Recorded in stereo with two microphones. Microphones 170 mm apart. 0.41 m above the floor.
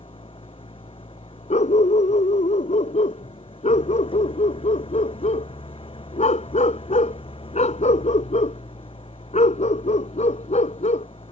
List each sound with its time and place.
0.0 s an engine running: 30° left (ahead or behind)
1.5 s a dog barking: 45° left (ahead or behind)